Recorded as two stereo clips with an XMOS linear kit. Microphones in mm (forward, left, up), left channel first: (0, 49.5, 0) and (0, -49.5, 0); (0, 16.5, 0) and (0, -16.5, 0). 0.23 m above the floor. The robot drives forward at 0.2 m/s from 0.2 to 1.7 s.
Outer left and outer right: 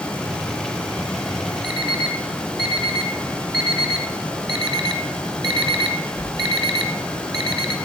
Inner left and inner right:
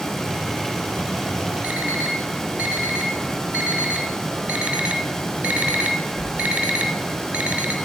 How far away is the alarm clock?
About 1.7 m.